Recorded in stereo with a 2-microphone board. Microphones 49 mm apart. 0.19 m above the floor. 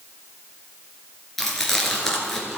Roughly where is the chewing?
Centre.